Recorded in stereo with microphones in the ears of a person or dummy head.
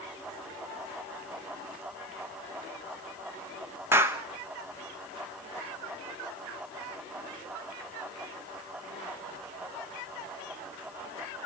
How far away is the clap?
About 1.1 m.